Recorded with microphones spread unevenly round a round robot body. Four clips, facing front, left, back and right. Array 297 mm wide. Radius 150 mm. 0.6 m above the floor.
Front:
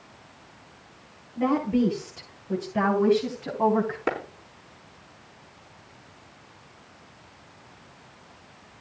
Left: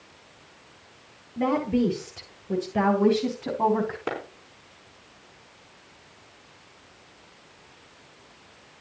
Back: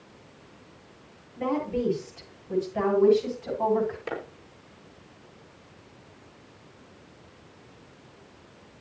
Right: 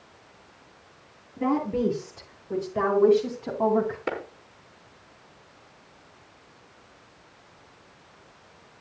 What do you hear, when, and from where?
1.4 s a woman speaking: 65° left, 9.5 m; by 4.0 s 55° left, 10.5 m
4.1 s a clap: 15° left, 5 m